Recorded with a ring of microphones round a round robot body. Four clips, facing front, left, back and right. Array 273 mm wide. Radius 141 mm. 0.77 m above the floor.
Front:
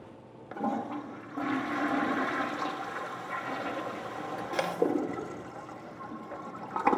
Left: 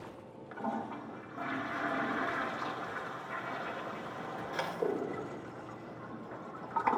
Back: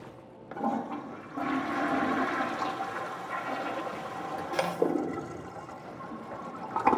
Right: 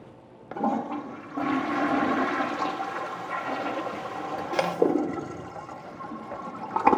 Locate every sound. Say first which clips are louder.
0.5 s a toilet flushing: right 10 dB, back 1 dB; 85° right, 1.2 m